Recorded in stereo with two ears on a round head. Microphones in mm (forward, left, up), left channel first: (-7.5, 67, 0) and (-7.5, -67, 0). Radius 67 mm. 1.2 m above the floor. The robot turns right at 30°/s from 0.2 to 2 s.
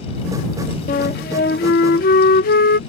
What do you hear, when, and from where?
0.9 s a flute: 70° left; by 2.8 s 100° left